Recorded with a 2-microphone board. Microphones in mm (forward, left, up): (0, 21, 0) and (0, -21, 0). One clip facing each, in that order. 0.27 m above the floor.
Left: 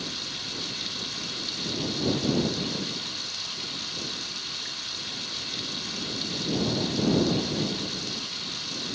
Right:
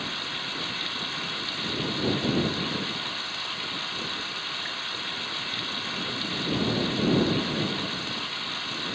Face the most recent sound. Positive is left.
turn(degrees=-25)  # may be behind; listen again after turning